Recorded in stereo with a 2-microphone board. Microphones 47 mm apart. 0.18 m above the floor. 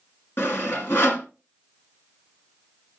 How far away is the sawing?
About 1.6 m.